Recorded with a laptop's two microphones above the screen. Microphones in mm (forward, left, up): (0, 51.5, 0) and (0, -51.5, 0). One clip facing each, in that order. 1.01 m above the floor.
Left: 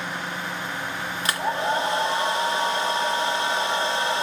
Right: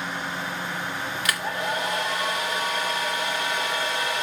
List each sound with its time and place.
1.2 s a hair dryer: 30° left (ahead or behind), 1.9 m